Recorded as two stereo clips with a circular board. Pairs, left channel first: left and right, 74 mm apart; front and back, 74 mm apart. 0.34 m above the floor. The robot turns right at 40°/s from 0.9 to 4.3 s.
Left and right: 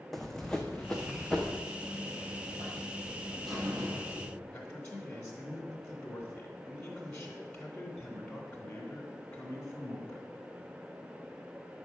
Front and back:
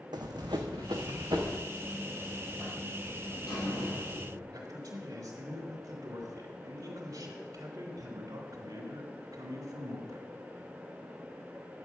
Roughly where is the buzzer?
Behind right.